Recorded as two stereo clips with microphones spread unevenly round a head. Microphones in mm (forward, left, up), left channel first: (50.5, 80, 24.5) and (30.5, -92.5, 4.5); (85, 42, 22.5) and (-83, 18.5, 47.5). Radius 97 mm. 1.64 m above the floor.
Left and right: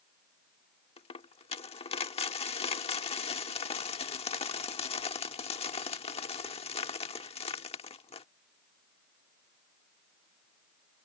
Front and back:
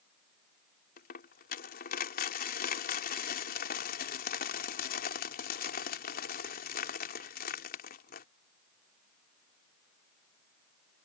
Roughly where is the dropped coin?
Ahead left.